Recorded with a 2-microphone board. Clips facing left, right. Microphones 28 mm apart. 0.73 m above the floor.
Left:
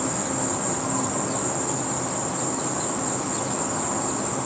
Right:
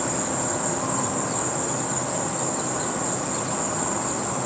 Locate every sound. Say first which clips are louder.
0.0 s an insect: even; 75° right (ahead or behind), 2.0 m